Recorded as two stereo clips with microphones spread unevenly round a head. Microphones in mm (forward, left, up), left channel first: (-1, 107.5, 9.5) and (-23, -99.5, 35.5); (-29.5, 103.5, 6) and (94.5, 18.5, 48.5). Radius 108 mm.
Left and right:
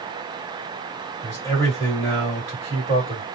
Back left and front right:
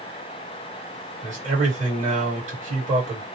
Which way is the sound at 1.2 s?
5° left.